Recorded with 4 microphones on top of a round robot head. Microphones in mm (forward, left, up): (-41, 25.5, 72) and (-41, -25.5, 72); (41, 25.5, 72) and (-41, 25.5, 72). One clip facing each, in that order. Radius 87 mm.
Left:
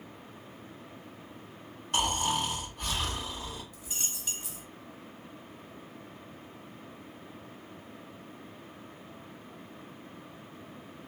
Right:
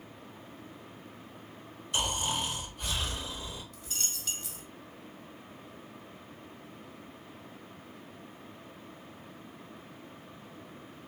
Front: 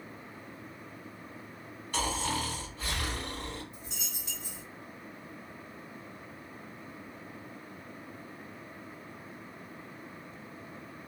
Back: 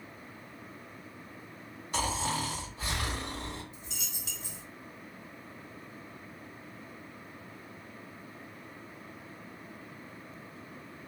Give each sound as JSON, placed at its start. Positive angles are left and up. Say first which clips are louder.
{"t": 1.9, "sound": "snoring", "louder": "left 3 dB, even", "azimuth_deg": 115, "distance_m": 1.9}
{"t": 3.7, "sound": "a dropped coin", "louder": "even, front 1 dB", "azimuth_deg": 165, "distance_m": 1.8}